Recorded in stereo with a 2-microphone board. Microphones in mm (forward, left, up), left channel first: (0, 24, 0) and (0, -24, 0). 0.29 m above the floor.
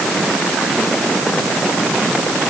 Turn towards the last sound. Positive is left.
No sound to turn to.